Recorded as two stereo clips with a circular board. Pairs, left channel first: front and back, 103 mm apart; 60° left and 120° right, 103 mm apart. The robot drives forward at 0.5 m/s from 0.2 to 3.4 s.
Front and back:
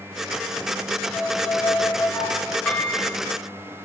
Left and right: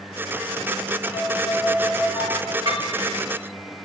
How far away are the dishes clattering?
About 2.0 m.